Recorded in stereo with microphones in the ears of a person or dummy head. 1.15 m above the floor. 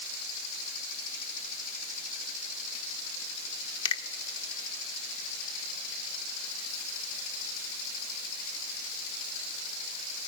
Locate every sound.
3.9 s a finger snap: 30° left (ahead or behind), 1.1 m